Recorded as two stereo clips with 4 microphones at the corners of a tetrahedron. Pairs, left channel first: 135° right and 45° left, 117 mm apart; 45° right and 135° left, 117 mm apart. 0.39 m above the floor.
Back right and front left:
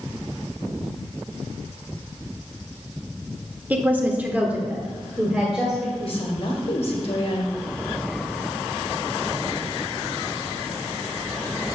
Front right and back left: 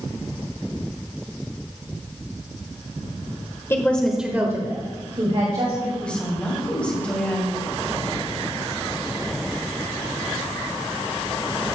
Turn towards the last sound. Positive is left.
turn(degrees=-125)